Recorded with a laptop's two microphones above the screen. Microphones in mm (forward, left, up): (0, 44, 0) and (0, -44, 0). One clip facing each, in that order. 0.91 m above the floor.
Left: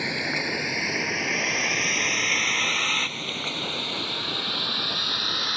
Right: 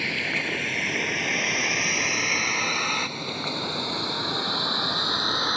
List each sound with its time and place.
0.0 s a vehicle: 20° left (ahead or behind); by 5.6 s 25° right (ahead or behind)